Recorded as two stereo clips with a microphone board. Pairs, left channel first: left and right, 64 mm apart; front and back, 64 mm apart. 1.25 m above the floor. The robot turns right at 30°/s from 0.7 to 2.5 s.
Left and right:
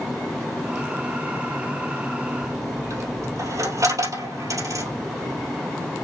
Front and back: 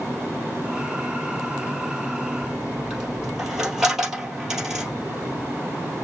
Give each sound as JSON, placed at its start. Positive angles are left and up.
{"t": 2.4, "sound": "a dropped coin", "azimuth_deg": -105, "distance_m": 2.5}